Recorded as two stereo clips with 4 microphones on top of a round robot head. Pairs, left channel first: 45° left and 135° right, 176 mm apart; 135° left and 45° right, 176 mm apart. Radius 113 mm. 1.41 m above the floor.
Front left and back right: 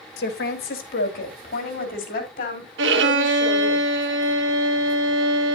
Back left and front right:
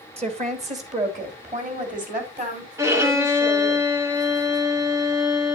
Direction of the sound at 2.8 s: 120° right.